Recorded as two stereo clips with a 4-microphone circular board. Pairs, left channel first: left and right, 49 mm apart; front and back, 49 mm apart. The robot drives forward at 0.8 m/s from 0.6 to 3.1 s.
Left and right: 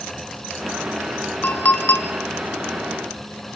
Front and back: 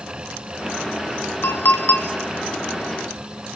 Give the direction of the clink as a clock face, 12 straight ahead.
11 o'clock.